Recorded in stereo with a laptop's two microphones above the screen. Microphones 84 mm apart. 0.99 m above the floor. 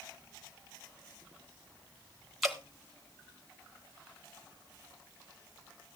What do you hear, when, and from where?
2.4 s dripping: centre (ahead or behind), 1.1 m